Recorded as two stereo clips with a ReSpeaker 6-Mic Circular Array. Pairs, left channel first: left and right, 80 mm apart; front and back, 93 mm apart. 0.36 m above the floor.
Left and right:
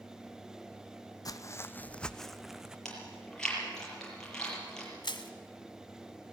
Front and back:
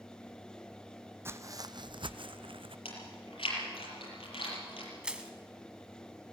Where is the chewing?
10° left, 6.5 m.